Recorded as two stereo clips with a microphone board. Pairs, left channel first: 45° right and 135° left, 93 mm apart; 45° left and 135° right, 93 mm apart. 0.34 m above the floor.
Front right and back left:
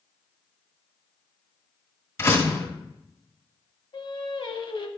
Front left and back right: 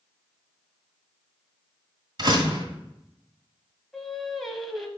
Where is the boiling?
No boiling in this recording.